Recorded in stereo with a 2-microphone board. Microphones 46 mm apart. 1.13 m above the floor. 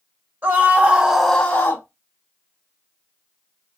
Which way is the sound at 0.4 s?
45° right (ahead or behind).